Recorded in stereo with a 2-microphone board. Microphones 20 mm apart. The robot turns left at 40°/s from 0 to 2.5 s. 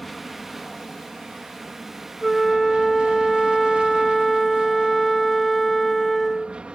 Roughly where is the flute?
Centre.